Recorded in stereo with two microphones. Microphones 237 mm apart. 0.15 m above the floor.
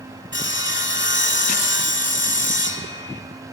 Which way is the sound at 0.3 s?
50° left (ahead or behind).